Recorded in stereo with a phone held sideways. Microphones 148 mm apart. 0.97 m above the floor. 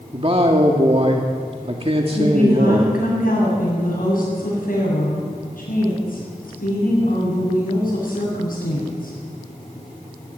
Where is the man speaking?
40° right (ahead or behind), 1.9 m.